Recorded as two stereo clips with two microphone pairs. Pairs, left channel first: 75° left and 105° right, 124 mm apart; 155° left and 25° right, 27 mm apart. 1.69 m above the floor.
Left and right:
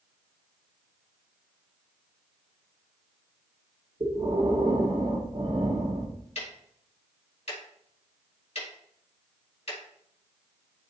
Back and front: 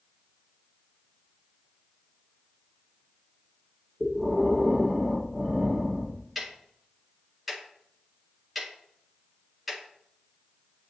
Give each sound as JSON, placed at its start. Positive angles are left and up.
{"t": 4.0, "sound": "breathing", "azimuth_deg": -85, "distance_m": 1.3}
{"t": 6.3, "sound": "ticking", "azimuth_deg": 55, "distance_m": 2.0}